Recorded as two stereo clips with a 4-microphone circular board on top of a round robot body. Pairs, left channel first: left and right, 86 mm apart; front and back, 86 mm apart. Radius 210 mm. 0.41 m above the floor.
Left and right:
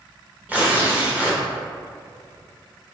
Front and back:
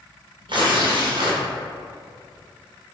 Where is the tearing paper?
160° right, 1.6 m.